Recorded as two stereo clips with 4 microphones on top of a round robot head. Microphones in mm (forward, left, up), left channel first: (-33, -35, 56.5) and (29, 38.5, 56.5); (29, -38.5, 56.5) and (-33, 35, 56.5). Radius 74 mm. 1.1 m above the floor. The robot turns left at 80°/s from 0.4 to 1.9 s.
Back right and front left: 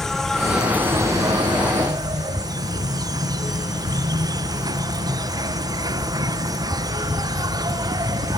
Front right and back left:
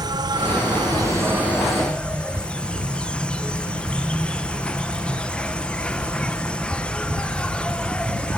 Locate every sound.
0.0 s an insect: 145° left; by 8.4 s 25° left